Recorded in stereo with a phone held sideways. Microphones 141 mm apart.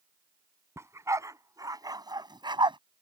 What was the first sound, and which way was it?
A dog barking, 20° right (ahead or behind).